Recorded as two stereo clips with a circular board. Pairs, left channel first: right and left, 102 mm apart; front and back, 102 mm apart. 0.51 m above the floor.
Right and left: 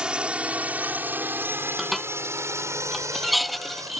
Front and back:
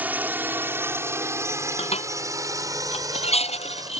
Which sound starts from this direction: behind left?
A drone, at 0.0 s.